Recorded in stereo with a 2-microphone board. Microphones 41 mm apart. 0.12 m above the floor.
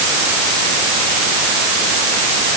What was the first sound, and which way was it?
Only background noise.